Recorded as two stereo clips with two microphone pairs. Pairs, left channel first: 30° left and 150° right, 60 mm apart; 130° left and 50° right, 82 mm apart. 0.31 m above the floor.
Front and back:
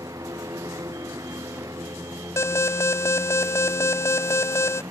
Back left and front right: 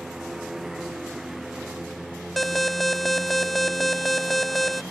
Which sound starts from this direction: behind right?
A lawn mower, at 0.0 s.